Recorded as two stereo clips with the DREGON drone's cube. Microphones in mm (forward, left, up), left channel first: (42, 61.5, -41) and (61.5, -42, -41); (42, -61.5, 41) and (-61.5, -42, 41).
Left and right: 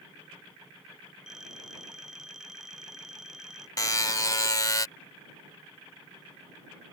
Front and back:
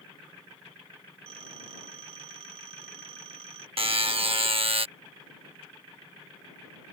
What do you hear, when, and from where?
1.3 s a phone ringing: 165° right
3.8 s a buzzer: 150° left